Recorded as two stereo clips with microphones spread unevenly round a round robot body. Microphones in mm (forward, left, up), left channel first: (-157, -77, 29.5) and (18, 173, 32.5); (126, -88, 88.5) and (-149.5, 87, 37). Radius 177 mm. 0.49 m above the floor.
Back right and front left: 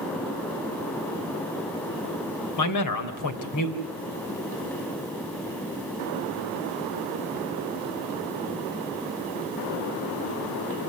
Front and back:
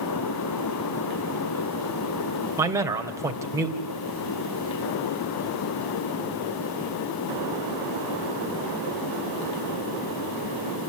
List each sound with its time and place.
2.6 s a man speaking: 135° right, 2 m